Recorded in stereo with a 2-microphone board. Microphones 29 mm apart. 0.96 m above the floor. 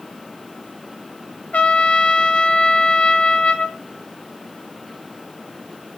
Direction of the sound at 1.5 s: 45° left (ahead or behind).